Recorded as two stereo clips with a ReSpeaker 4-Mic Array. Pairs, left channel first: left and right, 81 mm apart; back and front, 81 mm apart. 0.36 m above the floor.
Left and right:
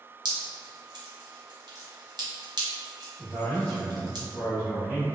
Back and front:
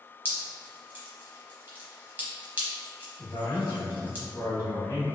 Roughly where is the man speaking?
Behind left.